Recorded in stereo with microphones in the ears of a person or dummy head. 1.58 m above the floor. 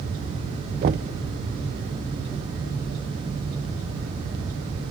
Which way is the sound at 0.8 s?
40° right (ahead or behind).